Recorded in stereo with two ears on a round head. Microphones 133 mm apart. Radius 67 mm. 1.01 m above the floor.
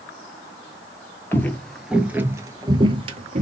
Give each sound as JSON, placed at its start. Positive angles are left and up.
{"t": 1.3, "sound": "footsteps", "side_deg": 15, "distance_m": 1.1}